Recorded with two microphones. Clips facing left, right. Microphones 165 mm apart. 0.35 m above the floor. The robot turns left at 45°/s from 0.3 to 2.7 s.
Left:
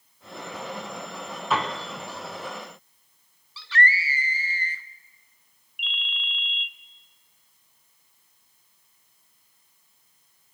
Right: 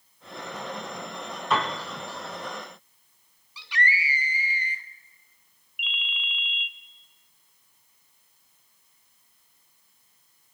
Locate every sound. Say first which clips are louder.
1.5 s a piano: even; 5° left (ahead or behind), 3.5 m; by 1.8 s 15° left (ahead or behind), 3.5 m
3.6 s a scream: left 3 dB; 15° right (ahead or behind), 0.8 m
5.8 s a ringtone: even; 5° right (ahead or behind), 0.8 m